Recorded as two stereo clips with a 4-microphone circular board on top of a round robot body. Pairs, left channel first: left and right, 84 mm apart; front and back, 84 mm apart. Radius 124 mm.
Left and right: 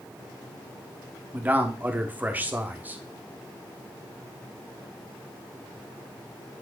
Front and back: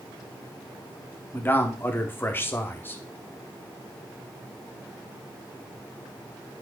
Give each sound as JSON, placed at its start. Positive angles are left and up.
{"t": 1.3, "sound": "a man speaking", "azimuth_deg": -40, "distance_m": 1.6}